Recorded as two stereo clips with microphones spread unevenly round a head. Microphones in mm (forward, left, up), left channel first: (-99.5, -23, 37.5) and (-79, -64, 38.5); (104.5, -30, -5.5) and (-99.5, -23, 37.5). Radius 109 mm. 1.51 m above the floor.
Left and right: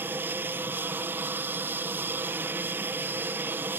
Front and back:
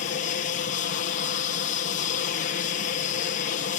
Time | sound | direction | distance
0.0 | an aircraft | 25° right | ?